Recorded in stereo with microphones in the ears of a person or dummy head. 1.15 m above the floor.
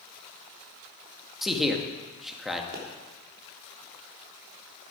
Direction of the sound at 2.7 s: 40° right (ahead or behind).